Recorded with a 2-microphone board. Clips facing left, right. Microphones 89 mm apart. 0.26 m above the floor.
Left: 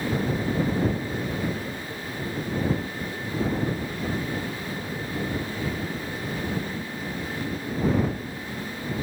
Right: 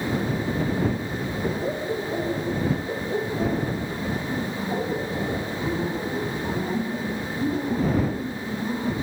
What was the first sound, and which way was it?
Laughter, 85° right.